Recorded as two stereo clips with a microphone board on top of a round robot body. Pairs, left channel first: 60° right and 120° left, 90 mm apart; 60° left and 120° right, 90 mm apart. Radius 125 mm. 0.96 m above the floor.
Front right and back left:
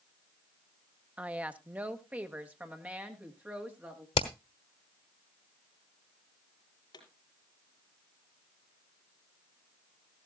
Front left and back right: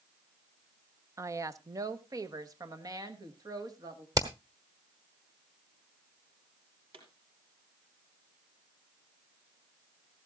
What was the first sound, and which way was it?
A woman speaking, 170° right.